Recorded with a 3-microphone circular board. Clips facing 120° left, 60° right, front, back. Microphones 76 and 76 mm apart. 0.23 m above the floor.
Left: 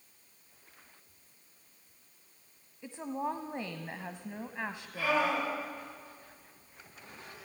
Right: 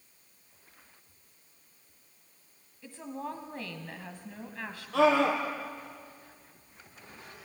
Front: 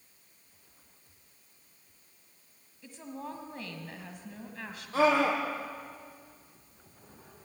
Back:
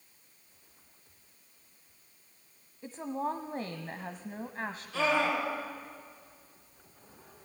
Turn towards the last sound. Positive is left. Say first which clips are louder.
# right 7 dB, front 4 dB
turn(degrees=-50)